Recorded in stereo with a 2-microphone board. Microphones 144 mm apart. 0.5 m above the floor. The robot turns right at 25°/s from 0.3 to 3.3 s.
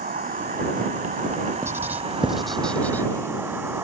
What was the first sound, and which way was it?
An insect, 90° right.